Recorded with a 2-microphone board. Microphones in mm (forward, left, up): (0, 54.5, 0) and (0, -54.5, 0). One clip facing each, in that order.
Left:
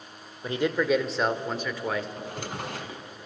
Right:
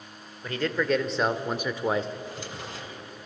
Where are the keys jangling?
No keys jangling in this recording.